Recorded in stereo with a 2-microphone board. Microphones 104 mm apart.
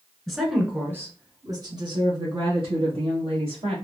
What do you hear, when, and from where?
0.3 s a woman speaking: 5° left (ahead or behind), 1.3 m; by 3.8 s 65° right (ahead or behind), 3 m